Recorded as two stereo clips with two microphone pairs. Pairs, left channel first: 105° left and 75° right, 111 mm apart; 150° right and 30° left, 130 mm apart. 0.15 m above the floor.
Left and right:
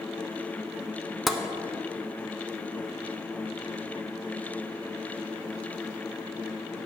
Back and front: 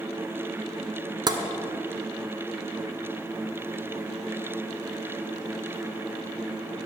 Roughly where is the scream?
No scream in this recording.